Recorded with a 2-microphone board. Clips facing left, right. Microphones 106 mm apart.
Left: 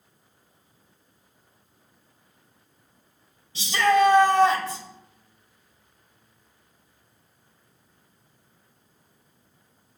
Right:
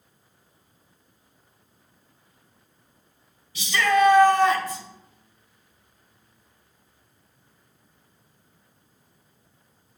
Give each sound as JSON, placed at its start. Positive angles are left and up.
{"t": 3.5, "sound": "a shout", "side_deg": 30, "distance_m": 1.2}